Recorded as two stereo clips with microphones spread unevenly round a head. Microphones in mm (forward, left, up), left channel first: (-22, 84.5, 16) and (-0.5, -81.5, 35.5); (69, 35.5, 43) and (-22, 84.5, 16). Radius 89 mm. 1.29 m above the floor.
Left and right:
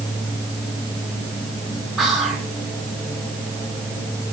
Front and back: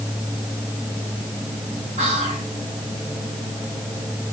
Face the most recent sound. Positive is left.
turn(degrees=-170)